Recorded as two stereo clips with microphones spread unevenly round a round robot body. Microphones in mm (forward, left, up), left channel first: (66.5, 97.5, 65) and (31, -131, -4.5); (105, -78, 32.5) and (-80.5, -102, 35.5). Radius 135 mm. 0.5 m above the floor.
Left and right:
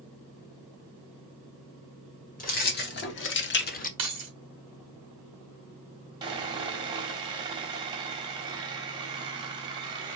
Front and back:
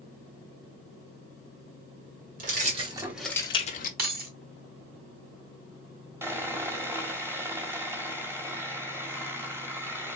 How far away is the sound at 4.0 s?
About 2.5 m.